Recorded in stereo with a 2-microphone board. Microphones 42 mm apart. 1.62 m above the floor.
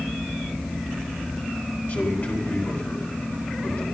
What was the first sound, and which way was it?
A man speaking, 45° left (ahead or behind).